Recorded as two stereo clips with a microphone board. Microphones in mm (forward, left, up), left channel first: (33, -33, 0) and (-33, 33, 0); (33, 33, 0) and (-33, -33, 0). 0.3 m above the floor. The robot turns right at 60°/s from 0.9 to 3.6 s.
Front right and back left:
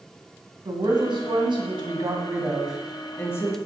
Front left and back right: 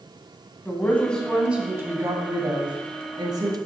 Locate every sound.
0.7 s a woman speaking: 110° left, 1.8 m; by 3.6 s 90° right, 1.8 m